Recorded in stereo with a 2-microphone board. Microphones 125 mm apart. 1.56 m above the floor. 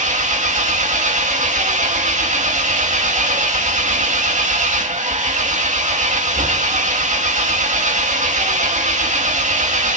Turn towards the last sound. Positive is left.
turn(degrees=-85)